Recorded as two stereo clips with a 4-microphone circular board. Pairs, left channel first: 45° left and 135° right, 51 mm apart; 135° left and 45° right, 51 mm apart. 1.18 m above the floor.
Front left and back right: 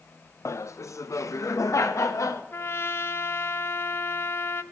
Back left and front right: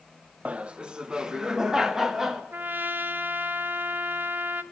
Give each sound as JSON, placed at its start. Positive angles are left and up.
{"t": 0.5, "sound": "laughter", "azimuth_deg": 20, "distance_m": 0.6}
{"t": 2.5, "sound": "a trumpet", "azimuth_deg": 10, "distance_m": 0.7}